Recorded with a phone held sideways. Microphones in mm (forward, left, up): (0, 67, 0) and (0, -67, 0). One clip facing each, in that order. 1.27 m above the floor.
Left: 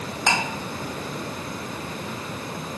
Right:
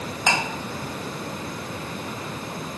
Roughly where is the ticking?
Centre.